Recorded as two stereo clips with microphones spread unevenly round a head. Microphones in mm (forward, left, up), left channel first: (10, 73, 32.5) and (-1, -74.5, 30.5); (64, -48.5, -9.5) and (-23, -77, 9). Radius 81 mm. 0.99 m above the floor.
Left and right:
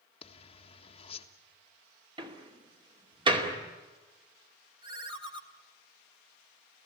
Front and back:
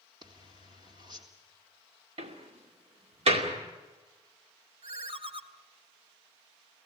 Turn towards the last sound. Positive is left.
turn(degrees=-155)